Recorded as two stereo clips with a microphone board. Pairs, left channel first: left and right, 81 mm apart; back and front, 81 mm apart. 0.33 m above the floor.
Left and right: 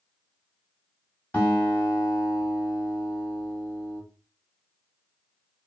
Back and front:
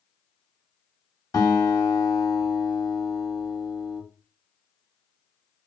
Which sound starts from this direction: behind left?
A guitar, at 1.3 s.